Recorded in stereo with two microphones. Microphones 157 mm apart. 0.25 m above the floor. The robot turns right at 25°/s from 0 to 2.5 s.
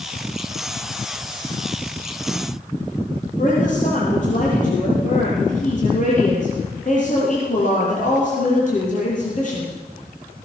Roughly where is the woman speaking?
Left.